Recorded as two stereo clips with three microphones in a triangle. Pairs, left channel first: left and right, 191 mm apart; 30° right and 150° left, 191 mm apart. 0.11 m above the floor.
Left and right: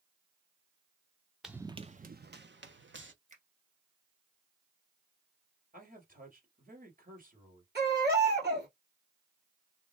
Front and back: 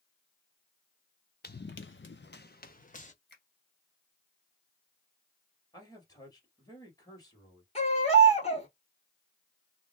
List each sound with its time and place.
1.4 s running footsteps: straight ahead, 0.6 m; by 3.1 s 80° right, 1.2 m
3.3 s a finger snap: 50° right, 2.5 m
5.7 s a man speaking: 95° right, 2 m
7.8 s a baby crying: 85° right, 1.8 m